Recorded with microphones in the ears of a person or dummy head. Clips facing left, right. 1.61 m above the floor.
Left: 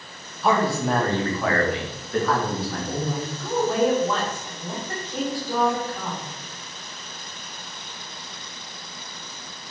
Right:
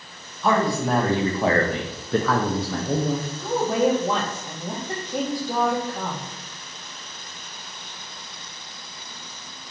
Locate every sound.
0.4 s a man speaking: 5° left (ahead or behind), 1.1 m; by 3.3 s 65° right (ahead or behind), 1.0 m
3.4 s a woman speaking: 20° right (ahead or behind), 0.9 m